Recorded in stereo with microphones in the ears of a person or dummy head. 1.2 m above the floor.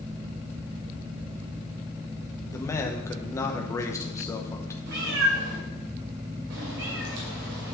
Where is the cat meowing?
75° right (ahead or behind), 2 m.